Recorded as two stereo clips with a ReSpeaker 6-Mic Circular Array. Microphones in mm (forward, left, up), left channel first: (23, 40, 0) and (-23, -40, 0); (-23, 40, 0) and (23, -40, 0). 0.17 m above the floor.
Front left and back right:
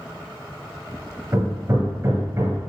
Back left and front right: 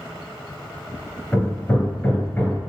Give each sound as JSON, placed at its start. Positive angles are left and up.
{"t": 1.3, "sound": "hammering", "azimuth_deg": -170, "distance_m": 2.5}